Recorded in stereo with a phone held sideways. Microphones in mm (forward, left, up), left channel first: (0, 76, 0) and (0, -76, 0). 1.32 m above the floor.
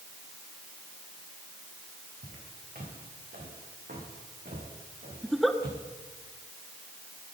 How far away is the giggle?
About 1.0 m.